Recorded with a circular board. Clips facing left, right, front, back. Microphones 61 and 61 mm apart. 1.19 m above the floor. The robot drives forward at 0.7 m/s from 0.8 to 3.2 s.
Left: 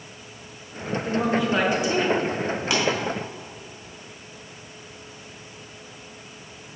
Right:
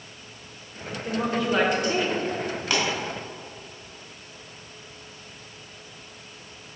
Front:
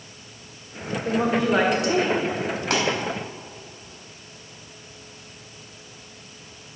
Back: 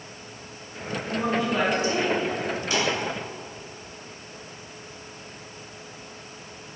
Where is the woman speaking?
5° left, 1.7 m; by 2.2 s 10° left, 0.9 m.